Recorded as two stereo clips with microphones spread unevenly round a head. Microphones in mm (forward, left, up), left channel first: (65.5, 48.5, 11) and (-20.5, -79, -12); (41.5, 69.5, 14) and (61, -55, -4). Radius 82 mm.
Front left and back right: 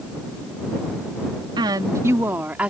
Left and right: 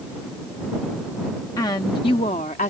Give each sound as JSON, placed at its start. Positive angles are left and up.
{"t": 1.6, "sound": "a woman speaking", "azimuth_deg": 175}